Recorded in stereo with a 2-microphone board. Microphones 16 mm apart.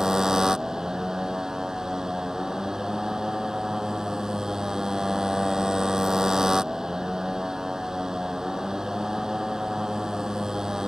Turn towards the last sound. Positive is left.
turn(degrees=-35)  # may be behind; listen again after turning